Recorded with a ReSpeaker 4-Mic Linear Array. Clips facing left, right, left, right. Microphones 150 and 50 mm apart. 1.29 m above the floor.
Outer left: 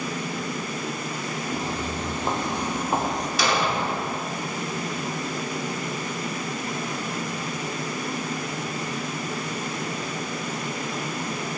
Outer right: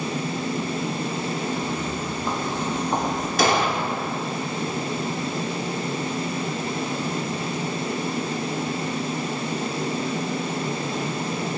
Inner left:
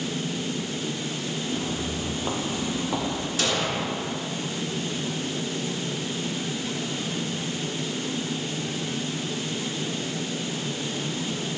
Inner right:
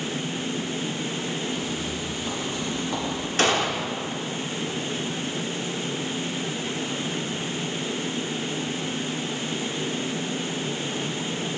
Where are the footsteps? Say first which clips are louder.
Outer right 2 dB, even; 40° left (ahead or behind), 1.7 m; by 3.3 s 5° right (ahead or behind), 1.3 m.